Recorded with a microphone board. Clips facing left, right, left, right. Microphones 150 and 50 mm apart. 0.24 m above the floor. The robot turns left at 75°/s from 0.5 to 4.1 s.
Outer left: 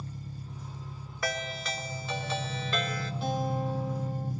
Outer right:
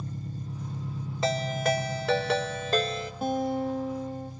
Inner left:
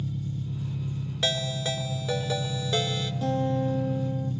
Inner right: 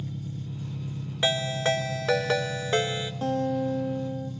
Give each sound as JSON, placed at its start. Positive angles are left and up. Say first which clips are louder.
{"t": 0.0, "sound": "an engine running", "louder": "outer right 5 dB, inner left 3 dB", "azimuth_deg": -40, "distance_m": 2.5}
{"t": 1.2, "sound": "a ringtone", "louder": "outer right 8 dB, inner right 4 dB", "azimuth_deg": -25, "distance_m": 1.5}
{"t": 3.2, "sound": "a guitar", "louder": "outer right 4 dB, even", "azimuth_deg": -45, "distance_m": 4.0}